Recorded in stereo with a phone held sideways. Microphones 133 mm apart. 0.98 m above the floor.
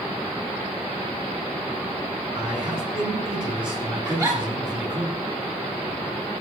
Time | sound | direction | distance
2.4 | a man speaking | 45° right (ahead or behind) | 8 m
4.0 | a giggle | 30° right (ahead or behind) | 8 m